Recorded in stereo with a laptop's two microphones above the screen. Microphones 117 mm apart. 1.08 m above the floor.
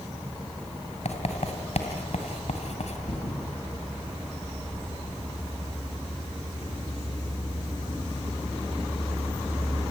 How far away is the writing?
About 3 m.